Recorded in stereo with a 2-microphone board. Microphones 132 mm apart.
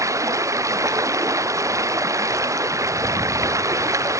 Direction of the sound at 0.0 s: 25° right (ahead or behind).